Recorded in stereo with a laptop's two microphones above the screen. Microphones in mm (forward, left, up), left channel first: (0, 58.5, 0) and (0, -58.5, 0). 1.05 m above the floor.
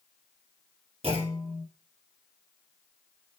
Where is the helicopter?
I don't hear a helicopter.